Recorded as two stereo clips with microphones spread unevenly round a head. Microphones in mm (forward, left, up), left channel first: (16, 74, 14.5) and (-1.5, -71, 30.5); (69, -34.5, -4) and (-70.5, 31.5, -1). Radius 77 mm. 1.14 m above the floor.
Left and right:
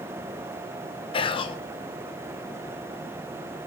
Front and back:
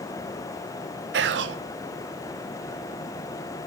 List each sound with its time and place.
1.1 s whispering: 140° left, 0.5 m